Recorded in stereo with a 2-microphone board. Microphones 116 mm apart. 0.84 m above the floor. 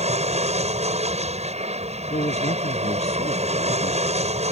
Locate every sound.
0.0 s an aircraft: 70° right (ahead or behind)
2.1 s a man speaking: 70° left (ahead or behind)